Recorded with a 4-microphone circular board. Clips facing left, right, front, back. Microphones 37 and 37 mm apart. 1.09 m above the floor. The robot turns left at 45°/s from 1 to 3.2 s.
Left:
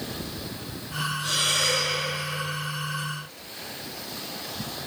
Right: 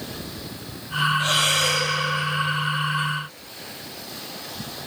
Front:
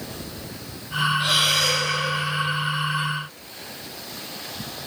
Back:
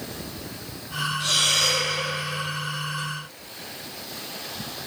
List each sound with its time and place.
1.2 s breathing: 65° right, 7.5 m; by 1.9 s 95° right, 7.5 m